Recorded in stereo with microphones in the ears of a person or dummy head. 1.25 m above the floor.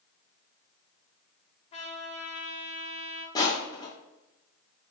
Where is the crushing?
20° left (ahead or behind), 0.5 m.